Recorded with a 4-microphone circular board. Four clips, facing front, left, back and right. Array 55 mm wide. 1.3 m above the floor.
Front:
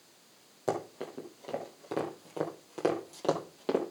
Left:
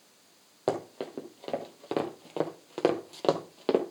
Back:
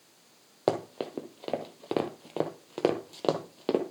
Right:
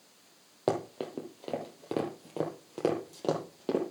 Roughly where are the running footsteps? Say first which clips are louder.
Even, back 5 dB; behind.